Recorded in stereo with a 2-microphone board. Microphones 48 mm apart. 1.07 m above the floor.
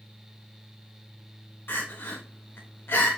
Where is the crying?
45° left (ahead or behind), 1.0 m.